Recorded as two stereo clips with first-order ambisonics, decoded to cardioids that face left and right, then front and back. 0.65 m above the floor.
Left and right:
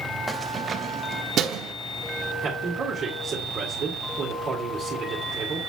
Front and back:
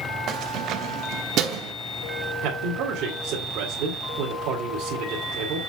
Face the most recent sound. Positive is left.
turn(degrees=-155)